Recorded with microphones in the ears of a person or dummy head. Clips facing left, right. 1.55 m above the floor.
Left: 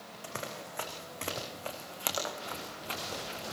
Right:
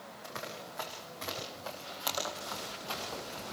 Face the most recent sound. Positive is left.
turn(degrees=30)  # may be behind; listen again after turning